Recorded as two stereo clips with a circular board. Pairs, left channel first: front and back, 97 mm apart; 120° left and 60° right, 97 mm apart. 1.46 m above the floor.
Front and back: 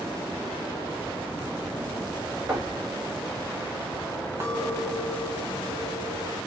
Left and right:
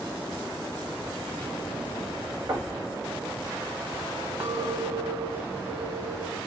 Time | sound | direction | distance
2.5 | knocking | 105° right | 1.7 m
4.4 | a clink | 130° right | 1.5 m